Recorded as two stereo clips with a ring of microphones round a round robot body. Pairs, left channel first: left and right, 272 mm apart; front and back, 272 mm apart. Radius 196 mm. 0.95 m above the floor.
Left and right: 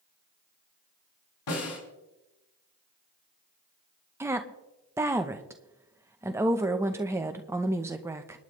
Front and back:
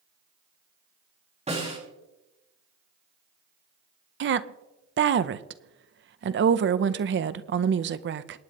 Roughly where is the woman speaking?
Behind.